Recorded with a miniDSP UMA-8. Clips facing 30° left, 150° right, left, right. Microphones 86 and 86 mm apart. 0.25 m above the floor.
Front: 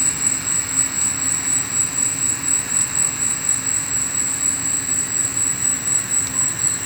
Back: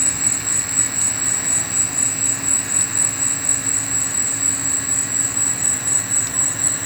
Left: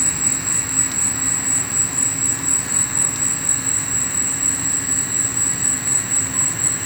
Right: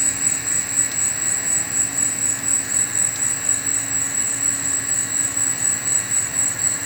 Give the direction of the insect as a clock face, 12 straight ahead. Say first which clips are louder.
Even, left 3 dB; 8 o'clock.